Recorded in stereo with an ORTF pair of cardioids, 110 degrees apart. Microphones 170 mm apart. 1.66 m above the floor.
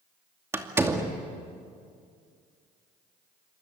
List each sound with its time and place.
0.5 s a door slam: 15° right, 2.5 m